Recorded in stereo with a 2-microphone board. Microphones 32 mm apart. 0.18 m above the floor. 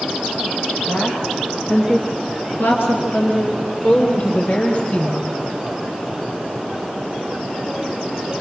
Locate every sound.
0.9 s a woman speaking: 40° left (ahead or behind), 4 m; by 5.3 s 45° left (ahead or behind), 5 m